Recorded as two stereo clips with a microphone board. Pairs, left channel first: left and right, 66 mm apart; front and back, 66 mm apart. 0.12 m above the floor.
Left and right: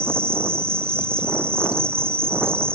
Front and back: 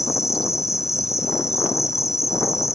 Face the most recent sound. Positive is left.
turn(degrees=-40)